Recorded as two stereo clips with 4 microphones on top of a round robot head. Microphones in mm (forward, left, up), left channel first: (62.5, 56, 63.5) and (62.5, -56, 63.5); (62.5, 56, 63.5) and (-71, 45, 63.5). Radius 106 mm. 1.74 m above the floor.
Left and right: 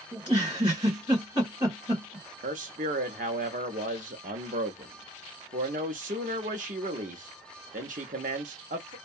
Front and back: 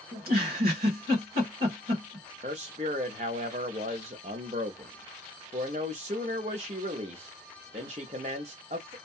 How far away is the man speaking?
About 0.6 m.